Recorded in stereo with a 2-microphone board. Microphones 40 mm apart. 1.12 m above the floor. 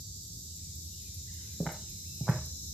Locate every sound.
1.6 s footsteps: 15° left (ahead or behind), 3 m